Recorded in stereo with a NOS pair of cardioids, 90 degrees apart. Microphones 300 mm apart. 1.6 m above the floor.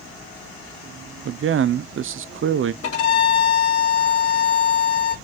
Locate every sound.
1.2 s a man speaking: 45° right, 0.7 m
2.8 s a violin: 55° left, 3 m